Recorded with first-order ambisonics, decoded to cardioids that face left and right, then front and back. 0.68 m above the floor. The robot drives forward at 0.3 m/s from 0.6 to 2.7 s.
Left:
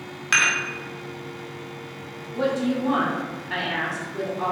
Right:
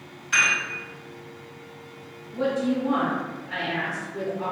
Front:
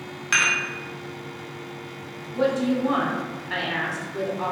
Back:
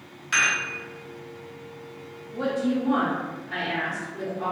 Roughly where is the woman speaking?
Ahead left.